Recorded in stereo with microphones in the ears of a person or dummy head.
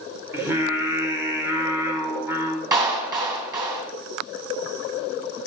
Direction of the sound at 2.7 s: 20° right (ahead or behind).